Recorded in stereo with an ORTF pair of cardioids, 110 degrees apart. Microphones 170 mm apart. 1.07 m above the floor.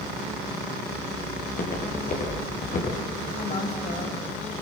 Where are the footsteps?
50° left, 9.5 m.